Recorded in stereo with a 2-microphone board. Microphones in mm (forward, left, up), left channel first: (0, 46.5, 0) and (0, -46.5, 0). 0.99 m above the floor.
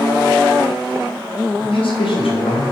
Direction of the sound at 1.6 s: 85° left.